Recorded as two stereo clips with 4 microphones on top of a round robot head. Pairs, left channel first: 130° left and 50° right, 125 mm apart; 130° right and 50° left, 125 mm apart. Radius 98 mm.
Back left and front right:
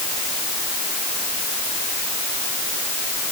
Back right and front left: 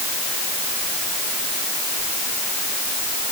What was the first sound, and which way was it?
Only background noise.